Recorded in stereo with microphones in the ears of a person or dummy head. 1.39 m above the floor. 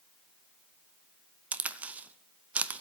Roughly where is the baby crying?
I don't hear a baby crying.